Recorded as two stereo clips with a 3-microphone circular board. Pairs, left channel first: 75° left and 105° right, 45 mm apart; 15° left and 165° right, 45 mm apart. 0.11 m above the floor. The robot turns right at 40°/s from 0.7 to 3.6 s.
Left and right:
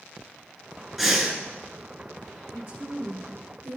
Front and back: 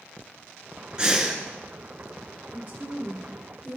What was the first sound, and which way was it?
Breathing, 170° left.